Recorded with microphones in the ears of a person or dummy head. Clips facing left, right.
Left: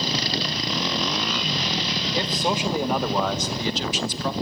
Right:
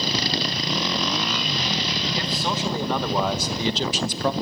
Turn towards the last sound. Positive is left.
turn(degrees=-50)  # may be behind; listen again after turning